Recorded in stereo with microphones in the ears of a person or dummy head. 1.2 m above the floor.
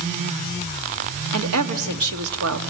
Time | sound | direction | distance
1.3 | a woman speaking | 85° right | 1.9 m